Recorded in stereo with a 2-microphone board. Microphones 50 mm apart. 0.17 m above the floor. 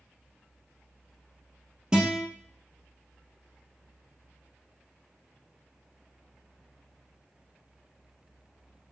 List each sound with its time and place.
1.9 s a guitar: 15° right (ahead or behind), 1.9 m